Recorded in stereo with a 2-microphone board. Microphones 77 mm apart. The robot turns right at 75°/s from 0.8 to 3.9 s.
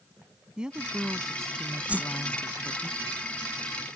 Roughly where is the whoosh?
Centre.